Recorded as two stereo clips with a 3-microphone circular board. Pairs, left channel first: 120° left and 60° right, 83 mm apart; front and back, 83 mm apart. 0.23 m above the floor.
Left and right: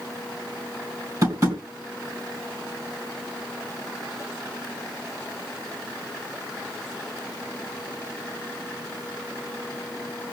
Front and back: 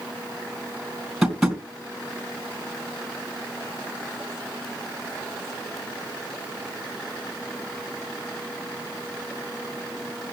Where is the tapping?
90° right, 2.5 m.